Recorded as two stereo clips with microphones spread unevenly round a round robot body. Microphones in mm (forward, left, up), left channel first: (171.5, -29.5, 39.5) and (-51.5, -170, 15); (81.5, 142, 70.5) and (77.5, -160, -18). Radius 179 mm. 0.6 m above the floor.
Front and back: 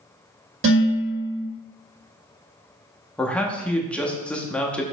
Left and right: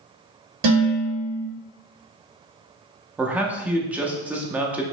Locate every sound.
0.6 s dishes clattering: 105° right, 2 m
3.2 s a man speaking: 60° right, 0.6 m